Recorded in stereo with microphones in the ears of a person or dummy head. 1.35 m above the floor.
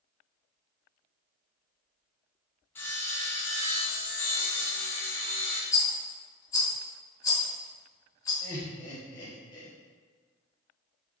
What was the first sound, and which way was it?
Sawing, 10° left (ahead or behind).